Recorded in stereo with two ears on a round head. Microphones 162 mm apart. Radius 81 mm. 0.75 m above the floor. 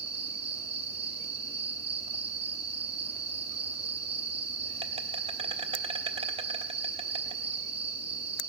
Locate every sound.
0.0 s an insect: 35° right (ahead or behind), 0.7 m